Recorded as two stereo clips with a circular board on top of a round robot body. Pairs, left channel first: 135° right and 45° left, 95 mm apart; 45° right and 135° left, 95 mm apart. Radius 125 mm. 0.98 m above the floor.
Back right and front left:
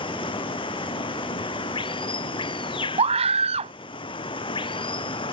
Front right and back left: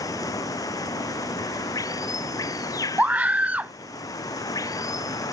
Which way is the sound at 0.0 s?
100° right.